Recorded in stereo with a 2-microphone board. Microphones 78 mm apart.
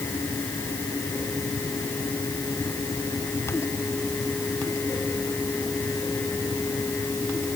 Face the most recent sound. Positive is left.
No sound to turn to.